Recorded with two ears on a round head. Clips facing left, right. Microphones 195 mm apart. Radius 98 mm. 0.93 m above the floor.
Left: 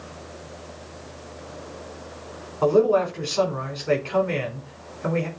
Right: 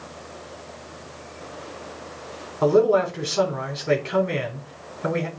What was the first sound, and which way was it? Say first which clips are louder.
A man speaking: right 1 dB; 25° right (ahead or behind).